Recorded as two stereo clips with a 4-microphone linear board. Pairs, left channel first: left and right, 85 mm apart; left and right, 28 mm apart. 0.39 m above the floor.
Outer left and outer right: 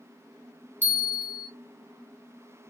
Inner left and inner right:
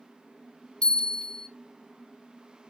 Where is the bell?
20° left (ahead or behind), 1.3 m.